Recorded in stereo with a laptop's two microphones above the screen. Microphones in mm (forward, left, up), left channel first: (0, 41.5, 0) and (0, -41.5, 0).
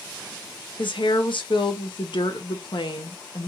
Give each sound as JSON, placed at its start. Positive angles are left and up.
{"t": 0.8, "sound": "a woman speaking", "side_deg": 70, "distance_m": 0.7}